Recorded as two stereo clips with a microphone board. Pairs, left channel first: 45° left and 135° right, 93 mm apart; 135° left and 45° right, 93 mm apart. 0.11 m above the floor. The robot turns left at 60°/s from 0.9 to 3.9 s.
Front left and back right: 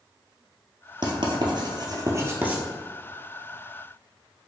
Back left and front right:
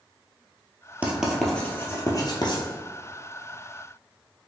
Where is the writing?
115° right, 0.9 m; by 2.6 s 150° left, 0.9 m.